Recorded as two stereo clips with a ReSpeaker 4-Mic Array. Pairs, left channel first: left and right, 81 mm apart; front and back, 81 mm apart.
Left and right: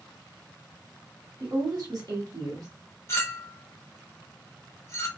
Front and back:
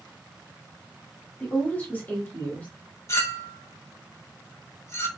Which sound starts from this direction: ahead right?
A woman speaking, at 1.4 s.